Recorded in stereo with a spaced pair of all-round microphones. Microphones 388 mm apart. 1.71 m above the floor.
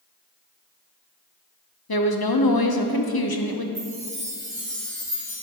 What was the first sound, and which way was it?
A woman speaking, 60° left (ahead or behind).